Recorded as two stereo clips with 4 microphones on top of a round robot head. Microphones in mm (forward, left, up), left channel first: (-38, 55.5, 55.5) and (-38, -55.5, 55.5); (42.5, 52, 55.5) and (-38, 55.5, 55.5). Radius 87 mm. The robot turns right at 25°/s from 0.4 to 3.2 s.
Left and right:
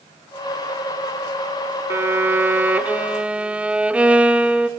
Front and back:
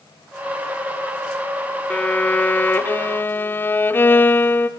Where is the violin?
55° right, 0.6 m; by 4.7 s 25° right, 0.6 m.